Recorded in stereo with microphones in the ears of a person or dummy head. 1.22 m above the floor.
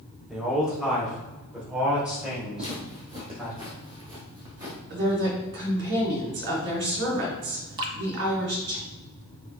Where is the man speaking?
Centre (ahead or behind), 3 m; by 3.6 s 5° right (ahead or behind), 5 m.